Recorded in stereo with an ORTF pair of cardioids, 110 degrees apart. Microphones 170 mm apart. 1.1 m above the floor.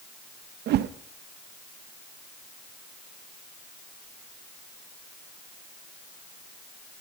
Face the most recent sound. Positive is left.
turn(degrees=-65)